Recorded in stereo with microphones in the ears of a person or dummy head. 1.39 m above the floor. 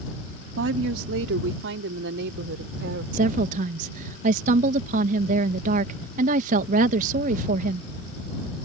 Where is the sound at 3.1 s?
55° right (ahead or behind).